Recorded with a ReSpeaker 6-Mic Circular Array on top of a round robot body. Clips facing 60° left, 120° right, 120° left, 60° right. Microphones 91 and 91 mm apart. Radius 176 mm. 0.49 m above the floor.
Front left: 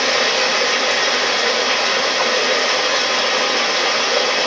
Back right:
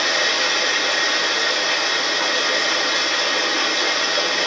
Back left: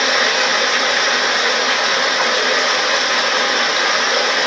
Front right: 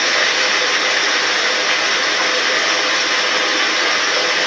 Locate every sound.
0.0 s running water: 45° left, 1.7 m